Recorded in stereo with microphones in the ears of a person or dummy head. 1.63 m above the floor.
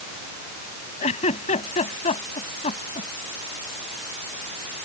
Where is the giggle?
30° left (ahead or behind).